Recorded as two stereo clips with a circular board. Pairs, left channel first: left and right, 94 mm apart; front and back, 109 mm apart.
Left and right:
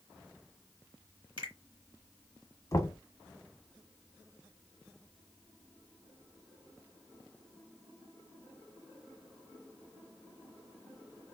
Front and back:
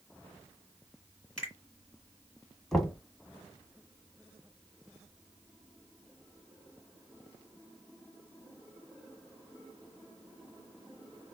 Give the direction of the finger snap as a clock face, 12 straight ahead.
3 o'clock.